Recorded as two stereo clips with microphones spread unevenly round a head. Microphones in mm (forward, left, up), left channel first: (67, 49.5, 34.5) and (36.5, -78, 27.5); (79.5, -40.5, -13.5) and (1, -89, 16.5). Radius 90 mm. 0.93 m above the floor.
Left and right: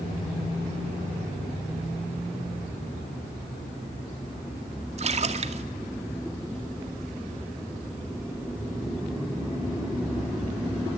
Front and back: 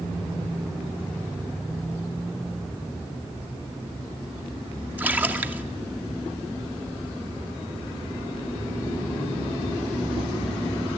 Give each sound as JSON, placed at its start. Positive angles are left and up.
{"t": 5.0, "sound": "a splash", "azimuth_deg": -70, "distance_m": 2.0}